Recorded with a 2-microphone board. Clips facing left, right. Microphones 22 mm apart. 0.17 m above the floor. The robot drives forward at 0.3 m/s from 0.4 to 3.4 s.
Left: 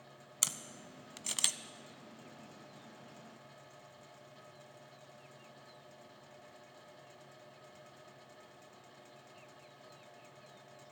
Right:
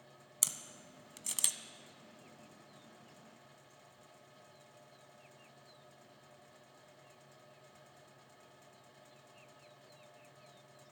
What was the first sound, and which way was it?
A camera shutter, 20° left (ahead or behind).